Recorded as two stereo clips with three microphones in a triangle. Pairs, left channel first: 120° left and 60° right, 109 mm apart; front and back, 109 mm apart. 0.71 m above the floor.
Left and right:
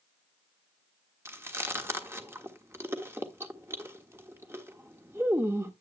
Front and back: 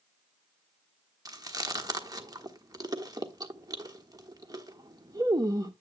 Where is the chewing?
125° right, 1.2 m.